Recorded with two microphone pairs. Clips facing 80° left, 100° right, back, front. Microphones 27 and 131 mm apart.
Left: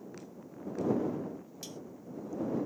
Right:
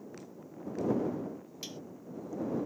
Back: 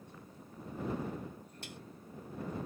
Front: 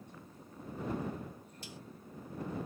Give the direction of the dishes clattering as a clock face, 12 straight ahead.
5 o'clock.